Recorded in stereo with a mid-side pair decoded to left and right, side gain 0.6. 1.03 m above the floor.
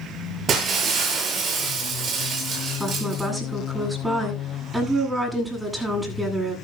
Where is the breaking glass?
45° right, 6 m.